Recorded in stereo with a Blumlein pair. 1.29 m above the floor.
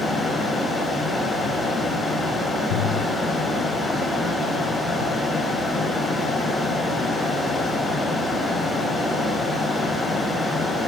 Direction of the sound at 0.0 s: 5° left.